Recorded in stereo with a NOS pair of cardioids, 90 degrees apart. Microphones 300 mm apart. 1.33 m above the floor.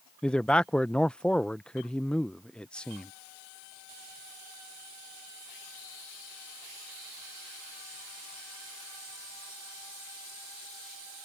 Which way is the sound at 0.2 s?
5° left.